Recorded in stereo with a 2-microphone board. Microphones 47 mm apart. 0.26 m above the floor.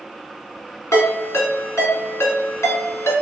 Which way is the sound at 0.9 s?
70° left (ahead or behind).